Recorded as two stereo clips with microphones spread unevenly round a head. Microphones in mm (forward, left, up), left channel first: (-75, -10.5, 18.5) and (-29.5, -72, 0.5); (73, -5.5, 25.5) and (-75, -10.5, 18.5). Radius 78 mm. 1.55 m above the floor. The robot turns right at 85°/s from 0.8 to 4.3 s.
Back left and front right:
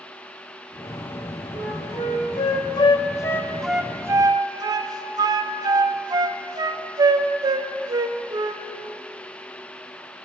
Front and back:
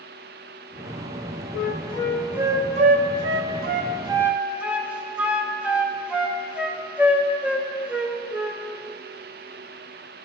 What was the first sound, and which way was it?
A flute, 30° left.